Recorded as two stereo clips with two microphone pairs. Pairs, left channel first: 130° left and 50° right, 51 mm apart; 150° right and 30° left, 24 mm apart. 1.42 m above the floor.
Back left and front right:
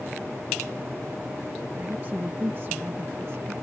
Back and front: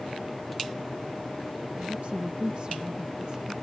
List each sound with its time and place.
1.8 s a woman speaking: 5° left; by 3.5 s 15° right